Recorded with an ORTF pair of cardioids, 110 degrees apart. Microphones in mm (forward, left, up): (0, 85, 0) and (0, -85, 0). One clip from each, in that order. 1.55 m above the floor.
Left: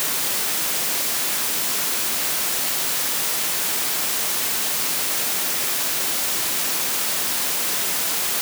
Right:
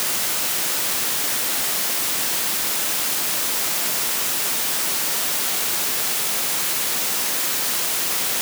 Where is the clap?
I don't hear a clap.